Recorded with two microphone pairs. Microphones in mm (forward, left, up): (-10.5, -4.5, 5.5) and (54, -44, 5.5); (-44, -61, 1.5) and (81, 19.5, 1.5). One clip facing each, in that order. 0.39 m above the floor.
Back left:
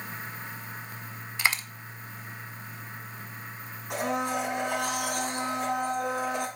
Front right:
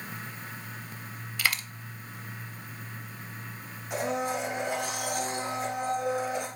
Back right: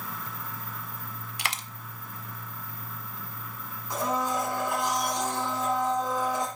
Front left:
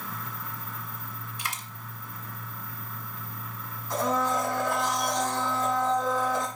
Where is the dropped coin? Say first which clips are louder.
Back left 2 dB, back right 3 dB; 145° right, 0.6 m.